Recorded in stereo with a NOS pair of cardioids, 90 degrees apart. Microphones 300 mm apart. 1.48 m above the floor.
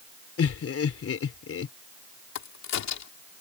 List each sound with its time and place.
0.4 s laughter: 50° left
2.4 s a crack: 65° left